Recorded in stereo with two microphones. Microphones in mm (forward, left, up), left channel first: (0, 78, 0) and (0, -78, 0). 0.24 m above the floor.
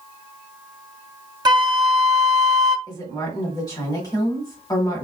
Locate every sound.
1.4 s a flute: 30° right (ahead or behind), 0.5 m
2.9 s a woman speaking: 20° left (ahead or behind), 1.2 m